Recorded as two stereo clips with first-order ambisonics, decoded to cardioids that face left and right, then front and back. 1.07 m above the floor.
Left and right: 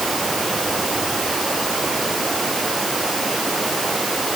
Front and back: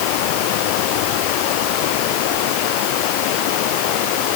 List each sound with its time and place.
0.0 s running water: 10° right